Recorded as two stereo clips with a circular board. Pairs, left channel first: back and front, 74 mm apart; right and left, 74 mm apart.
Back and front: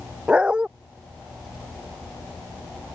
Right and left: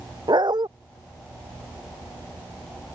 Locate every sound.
0.3 s a dog barking: 80° left